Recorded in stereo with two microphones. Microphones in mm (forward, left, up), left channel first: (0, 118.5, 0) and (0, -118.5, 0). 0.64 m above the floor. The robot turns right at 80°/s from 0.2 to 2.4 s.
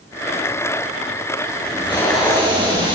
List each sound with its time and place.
1.6 s tape being pulled: 135° left, 9.5 m; by 3.0 s 160° right, 9.5 m